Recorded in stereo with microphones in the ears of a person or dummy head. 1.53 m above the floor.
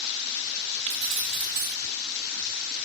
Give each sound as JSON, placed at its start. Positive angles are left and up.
{"t": 0.9, "sound": "keys jangling", "side_deg": -40, "distance_m": 0.8}